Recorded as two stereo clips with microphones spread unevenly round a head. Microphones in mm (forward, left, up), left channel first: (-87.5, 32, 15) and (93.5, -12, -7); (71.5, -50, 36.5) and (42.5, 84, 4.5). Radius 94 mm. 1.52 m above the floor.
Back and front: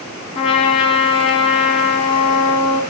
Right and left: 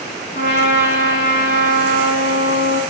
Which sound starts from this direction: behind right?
A trumpet, at 0.3 s.